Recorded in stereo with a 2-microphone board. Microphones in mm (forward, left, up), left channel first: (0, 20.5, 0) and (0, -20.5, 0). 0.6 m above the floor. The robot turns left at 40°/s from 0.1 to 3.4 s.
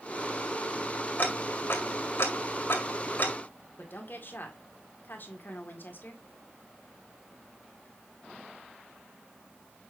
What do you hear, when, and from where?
1.2 s ticking: 40° left (ahead or behind), 1.8 m; by 3.3 s 45° left (ahead or behind), 1.8 m
3.8 s a woman speaking: 55° left (ahead or behind), 2 m